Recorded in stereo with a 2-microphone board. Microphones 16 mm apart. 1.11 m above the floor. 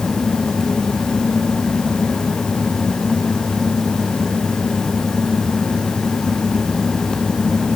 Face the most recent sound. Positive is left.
No sound to turn to.